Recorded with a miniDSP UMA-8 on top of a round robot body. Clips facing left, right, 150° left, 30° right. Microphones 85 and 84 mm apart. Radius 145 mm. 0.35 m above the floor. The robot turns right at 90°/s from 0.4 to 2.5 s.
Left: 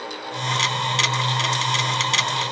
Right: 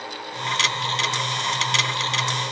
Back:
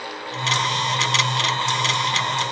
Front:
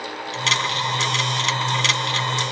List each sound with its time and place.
Only background noise.